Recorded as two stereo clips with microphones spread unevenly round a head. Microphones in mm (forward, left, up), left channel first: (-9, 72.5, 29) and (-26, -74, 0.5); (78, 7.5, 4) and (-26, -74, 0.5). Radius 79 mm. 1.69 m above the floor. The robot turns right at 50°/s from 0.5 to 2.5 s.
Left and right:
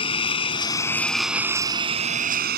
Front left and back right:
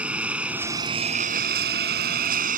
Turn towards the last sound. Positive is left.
turn(degrees=-125)